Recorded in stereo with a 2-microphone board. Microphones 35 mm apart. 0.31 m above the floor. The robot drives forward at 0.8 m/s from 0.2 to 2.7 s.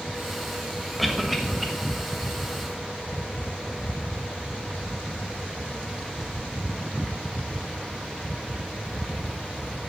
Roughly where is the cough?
Centre.